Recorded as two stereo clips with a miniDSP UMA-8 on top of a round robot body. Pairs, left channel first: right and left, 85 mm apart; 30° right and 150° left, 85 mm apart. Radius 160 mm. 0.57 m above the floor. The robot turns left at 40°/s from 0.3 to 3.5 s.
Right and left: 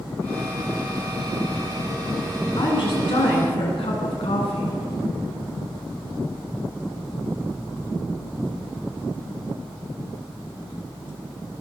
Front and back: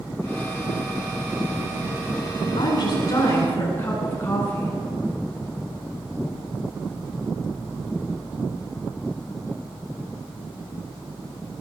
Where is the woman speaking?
60° right, 8 m; by 4.8 s 95° right, 8 m.